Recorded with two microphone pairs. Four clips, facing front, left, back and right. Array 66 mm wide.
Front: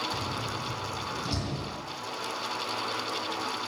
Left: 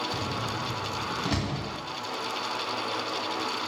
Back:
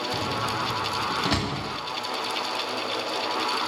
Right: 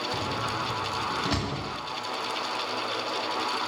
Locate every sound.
0.1 s a door slam: 175° right, 2 m